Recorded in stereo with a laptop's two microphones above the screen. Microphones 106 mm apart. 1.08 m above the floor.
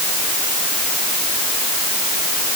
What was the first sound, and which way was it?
Only background noise.